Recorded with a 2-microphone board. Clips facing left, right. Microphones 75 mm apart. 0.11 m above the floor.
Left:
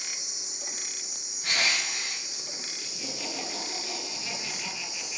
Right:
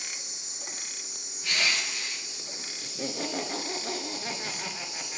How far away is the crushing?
About 6.5 m.